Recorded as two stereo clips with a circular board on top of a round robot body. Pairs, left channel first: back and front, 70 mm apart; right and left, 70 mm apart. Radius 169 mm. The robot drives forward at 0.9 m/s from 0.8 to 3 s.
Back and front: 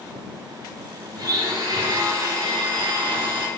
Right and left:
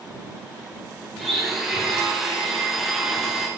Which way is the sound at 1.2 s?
5° left.